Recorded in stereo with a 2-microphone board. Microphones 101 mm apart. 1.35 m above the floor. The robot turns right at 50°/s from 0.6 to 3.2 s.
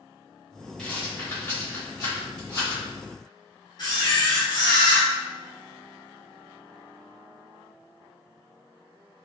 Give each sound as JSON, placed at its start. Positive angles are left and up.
{"t": 0.8, "sound": "a rattle", "side_deg": 5, "distance_m": 1.6}
{"t": 3.8, "sound": "a camera shutter", "side_deg": 45, "distance_m": 1.0}